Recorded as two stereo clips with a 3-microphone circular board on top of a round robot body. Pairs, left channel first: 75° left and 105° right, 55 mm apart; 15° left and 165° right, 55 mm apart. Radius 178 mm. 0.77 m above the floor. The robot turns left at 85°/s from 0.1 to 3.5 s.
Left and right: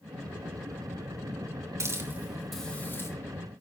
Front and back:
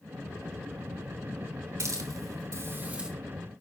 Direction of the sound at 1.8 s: 135° right.